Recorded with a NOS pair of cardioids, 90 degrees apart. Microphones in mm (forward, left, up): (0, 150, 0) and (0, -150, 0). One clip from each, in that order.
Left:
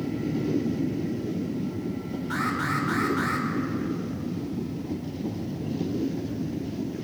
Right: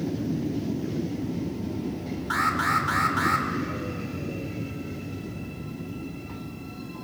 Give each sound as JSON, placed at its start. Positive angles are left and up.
{"t": 2.3, "sound": "an alarm", "azimuth_deg": -45, "distance_m": 5.0}